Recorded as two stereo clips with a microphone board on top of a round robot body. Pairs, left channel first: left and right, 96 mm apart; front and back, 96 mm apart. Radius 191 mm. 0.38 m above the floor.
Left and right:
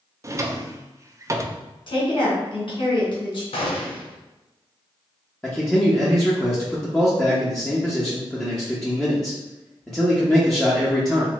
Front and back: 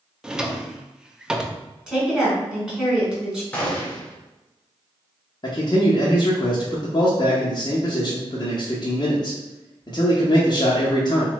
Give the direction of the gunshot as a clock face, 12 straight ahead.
9 o'clock.